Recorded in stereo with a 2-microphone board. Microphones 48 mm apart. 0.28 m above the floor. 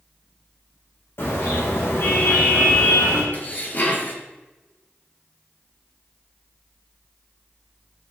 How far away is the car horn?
About 8.5 m.